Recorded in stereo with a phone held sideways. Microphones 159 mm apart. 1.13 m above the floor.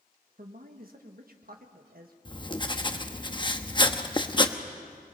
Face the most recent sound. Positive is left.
turn(degrees=30)  # may be behind; listen again after turning